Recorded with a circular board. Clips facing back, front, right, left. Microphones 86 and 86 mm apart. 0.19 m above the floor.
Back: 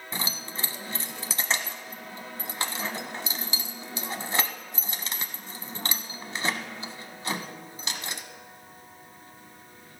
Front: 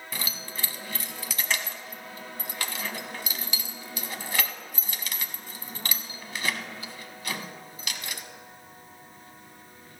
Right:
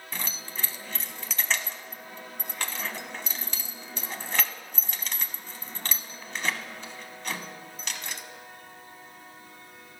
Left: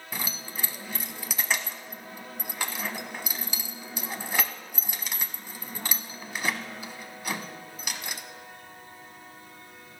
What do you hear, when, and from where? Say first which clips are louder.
0.1 s keys jangling: back 3 dB, left 2 dB; 160° left, 0.7 m